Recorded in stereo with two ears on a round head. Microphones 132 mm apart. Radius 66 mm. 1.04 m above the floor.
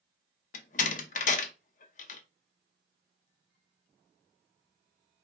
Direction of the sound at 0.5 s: 55° left (ahead or behind).